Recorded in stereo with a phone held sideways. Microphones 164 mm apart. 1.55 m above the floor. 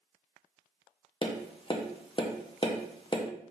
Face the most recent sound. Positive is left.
turn(degrees=35)  # may be behind; listen again after turning